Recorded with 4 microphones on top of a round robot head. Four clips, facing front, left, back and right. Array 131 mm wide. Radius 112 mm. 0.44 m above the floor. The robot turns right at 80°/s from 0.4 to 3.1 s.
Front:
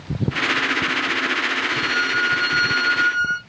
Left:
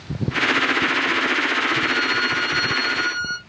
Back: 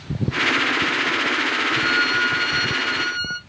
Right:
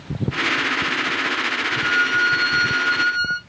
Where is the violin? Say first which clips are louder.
Right 2 dB, back 2 dB; 75° right, 1.6 m; by 3.4 s 35° left, 1.6 m.